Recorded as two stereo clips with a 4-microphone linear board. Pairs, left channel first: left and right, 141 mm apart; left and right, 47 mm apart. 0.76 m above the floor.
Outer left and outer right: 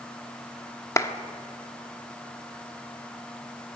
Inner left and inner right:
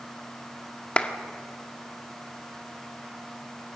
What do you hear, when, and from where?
1.0 s a clap: 20° left (ahead or behind), 1.2 m